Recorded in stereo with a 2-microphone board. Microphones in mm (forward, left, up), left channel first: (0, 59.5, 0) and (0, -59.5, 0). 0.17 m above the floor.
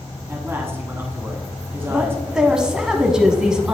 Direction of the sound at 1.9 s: 5° right (ahead or behind).